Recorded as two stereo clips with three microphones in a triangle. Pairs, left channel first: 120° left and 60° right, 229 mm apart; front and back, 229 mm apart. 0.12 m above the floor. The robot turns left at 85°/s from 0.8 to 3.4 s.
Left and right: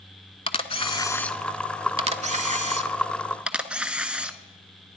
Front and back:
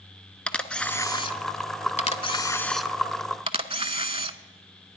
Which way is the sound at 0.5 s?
80° left.